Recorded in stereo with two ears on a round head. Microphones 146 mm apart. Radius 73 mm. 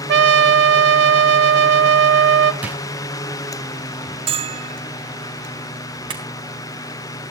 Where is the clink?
30° right (ahead or behind), 3.5 m.